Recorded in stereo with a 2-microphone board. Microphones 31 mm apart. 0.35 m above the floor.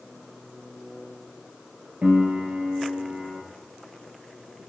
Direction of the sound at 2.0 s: 60° right (ahead or behind).